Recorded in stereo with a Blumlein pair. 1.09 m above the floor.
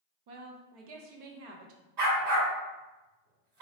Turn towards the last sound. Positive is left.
turn(degrees=-40)